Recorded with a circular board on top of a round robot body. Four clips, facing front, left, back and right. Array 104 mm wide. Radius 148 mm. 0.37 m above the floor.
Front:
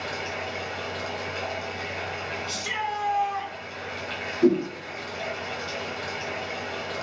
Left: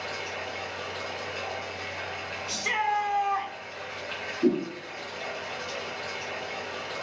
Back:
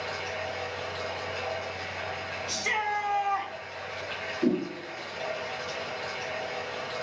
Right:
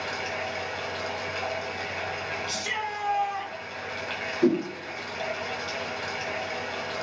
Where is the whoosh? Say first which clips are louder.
Right 2 dB, front 6 dB; 55° right, 1.0 m.